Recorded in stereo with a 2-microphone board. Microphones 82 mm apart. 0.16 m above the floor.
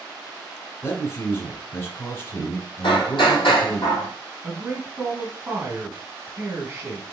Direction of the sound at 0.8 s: 30° left (ahead or behind).